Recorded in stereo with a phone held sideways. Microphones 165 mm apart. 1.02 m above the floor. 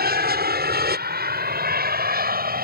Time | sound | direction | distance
0.0 | an aircraft | 65° right (ahead or behind) | ?